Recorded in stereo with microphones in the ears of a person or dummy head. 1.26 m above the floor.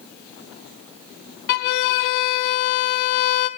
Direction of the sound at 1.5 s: 55° left (ahead or behind).